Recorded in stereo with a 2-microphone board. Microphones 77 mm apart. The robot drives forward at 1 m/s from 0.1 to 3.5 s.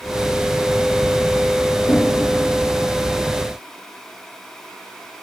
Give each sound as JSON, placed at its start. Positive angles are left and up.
{"t": 1.9, "sound": "knocking", "side_deg": 65, "distance_m": 6.5}